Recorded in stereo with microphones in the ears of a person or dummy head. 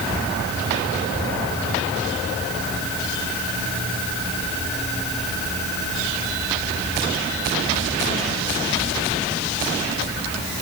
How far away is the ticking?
No ticking in this recording.